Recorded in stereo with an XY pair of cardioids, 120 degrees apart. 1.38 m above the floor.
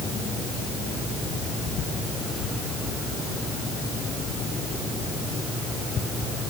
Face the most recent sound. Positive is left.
No sound to turn to.